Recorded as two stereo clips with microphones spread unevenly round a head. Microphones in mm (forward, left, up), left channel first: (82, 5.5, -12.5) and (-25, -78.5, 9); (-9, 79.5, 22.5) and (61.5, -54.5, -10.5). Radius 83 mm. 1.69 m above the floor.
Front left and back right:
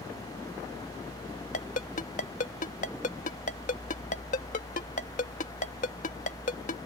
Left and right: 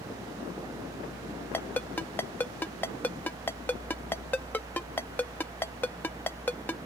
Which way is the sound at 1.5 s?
55° left.